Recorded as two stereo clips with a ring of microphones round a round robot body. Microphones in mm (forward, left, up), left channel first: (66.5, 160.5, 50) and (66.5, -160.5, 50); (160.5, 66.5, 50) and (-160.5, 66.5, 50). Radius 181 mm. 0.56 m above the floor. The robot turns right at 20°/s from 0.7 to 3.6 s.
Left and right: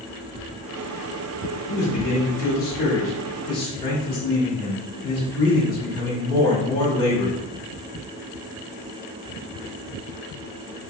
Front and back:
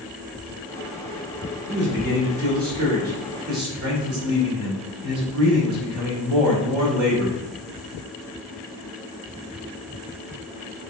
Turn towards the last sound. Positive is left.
turn(degrees=165)